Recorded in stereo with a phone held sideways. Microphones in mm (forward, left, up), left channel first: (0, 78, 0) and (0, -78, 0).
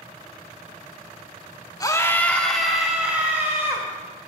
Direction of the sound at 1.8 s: 25° left (ahead or behind).